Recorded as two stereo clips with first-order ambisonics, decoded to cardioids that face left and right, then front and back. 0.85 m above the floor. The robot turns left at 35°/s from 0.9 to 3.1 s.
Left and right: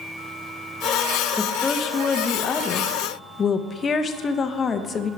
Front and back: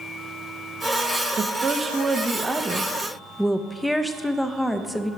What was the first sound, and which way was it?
A woman speaking, 145° left.